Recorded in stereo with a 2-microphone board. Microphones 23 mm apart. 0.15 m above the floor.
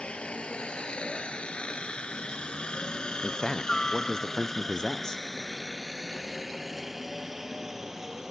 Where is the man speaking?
30° left (ahead or behind).